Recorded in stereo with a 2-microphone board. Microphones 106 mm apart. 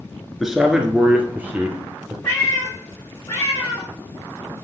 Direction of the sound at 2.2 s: 30° left (ahead or behind).